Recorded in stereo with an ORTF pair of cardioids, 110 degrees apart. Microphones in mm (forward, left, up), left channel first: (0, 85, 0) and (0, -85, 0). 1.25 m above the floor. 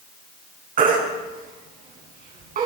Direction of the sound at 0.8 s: 55° right.